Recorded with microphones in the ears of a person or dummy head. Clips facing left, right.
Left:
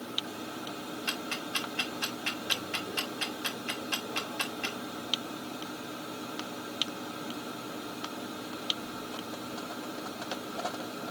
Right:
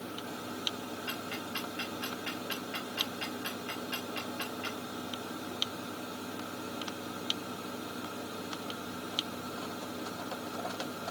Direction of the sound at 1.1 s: 60° left (ahead or behind).